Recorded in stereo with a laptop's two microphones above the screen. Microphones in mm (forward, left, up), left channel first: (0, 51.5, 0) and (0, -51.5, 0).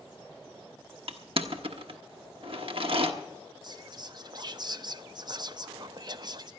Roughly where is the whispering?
Right.